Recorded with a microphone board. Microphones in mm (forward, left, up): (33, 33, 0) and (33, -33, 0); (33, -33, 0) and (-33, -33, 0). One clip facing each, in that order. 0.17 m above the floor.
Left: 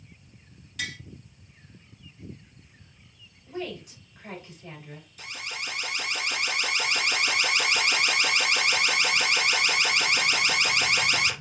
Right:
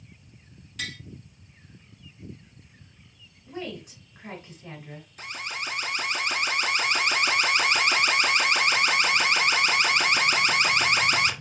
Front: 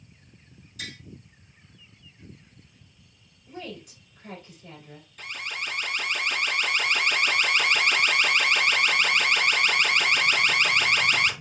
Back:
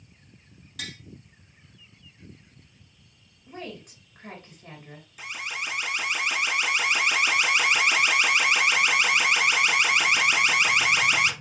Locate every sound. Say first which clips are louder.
0.8 s tapping: left 1 dB, back 1 dB; 175° left, 2 m
3.5 s a woman speaking: left 1 dB, even; 150° right, 2.5 m
5.2 s an alarm: right 3 dB, back 1 dB; 105° right, 0.9 m